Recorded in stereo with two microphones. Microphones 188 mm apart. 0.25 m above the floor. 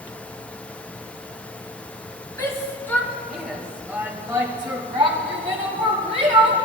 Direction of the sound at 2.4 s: 15° left (ahead or behind).